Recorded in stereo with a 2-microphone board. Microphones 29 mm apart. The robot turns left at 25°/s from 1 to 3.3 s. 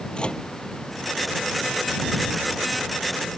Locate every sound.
0.1 s a microwave: 35° left (ahead or behind)